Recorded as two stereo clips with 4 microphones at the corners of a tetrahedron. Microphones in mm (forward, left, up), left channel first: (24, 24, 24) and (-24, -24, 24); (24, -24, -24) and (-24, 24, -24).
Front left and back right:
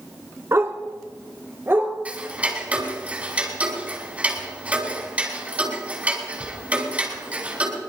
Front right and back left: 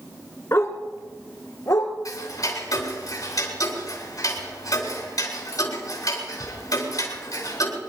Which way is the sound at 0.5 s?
90° right.